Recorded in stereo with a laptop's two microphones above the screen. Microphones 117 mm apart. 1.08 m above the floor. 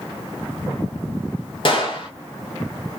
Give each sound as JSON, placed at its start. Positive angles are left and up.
{"t": 1.6, "sound": "a gunshot", "side_deg": 45, "distance_m": 0.6}